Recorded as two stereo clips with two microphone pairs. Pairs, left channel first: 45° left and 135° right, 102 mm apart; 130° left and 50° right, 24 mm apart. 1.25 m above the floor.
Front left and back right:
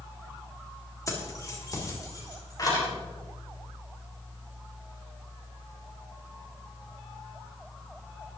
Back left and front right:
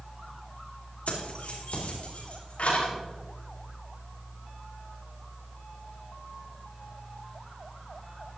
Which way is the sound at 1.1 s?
105° left.